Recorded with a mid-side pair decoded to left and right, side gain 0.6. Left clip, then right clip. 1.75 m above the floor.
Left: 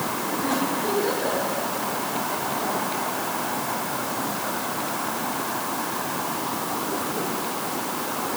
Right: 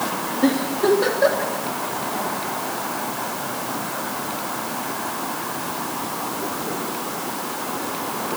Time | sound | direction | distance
0.4 | a giggle | 65° right | 3 m